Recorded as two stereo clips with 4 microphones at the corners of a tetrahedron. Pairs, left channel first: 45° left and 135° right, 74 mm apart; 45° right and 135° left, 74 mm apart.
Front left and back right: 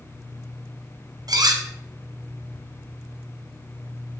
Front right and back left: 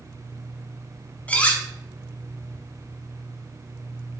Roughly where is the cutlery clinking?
Behind right.